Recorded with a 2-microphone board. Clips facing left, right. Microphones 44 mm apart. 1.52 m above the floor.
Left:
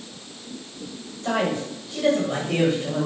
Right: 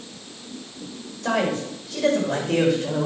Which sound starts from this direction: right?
A man speaking, at 1.2 s.